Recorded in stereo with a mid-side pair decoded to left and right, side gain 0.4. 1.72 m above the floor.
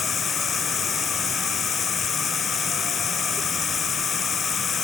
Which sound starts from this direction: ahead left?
Running water, at 0.0 s.